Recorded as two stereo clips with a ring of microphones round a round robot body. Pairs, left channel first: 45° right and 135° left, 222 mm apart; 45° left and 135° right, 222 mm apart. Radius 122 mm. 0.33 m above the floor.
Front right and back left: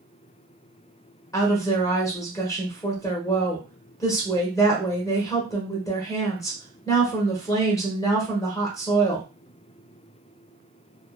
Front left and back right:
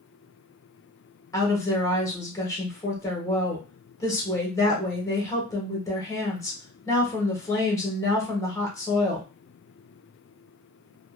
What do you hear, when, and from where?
1.3 s a woman speaking: straight ahead, 1.0 m